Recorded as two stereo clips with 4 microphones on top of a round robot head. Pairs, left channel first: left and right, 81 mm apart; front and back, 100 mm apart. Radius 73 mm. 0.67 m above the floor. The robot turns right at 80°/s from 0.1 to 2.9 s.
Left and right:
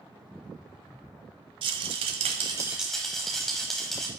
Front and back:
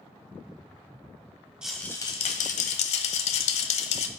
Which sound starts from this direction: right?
A rattle, at 1.6 s.